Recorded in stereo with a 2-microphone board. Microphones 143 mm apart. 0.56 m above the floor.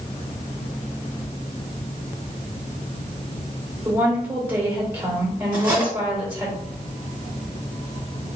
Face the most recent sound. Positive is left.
turn(degrees=-15)  # may be behind; listen again after turning